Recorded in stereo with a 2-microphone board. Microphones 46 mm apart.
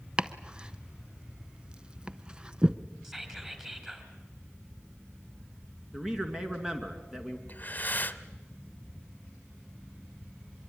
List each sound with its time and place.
0.2 s chopping: 20° right (ahead or behind), 0.7 m
3.0 s whispering: 10° right (ahead or behind), 3.5 m
5.9 s a man speaking: 15° right (ahead or behind), 2.5 m
7.5 s breathing: 40° left (ahead or behind), 1.0 m